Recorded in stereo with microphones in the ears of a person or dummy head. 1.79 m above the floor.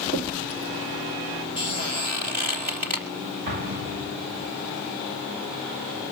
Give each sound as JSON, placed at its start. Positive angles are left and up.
{"t": 0.1, "sound": "knocking", "side_deg": -40, "distance_m": 1.6}
{"t": 1.6, "sound": "a squeak", "side_deg": -40, "distance_m": 3.0}
{"t": 3.5, "sound": "an explosion", "side_deg": -50, "distance_m": 3.5}